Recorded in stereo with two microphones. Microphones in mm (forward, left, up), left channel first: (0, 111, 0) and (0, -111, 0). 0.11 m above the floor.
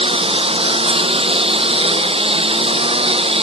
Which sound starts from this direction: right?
A lawn mower, at 0.0 s.